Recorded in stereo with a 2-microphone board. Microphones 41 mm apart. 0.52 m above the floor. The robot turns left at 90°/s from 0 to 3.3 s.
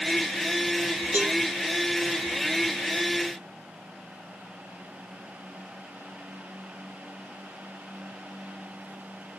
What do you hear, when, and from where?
1.1 s a cowbell: 60° right (ahead or behind), 3 m; by 1.4 s 80° right, 3 m